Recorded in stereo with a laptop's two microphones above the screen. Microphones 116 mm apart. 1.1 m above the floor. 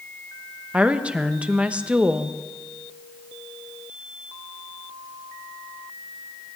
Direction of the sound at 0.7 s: 10° right (ahead or behind).